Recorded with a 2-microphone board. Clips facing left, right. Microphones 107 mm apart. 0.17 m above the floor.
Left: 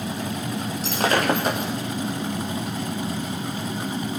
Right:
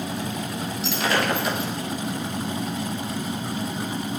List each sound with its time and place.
0.8 s breaking glass: 40° left (ahead or behind), 6.5 m